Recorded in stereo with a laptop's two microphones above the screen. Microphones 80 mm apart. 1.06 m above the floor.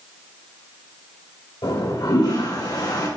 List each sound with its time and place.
1.6 s a toilet flushing: 65° left (ahead or behind), 4.5 m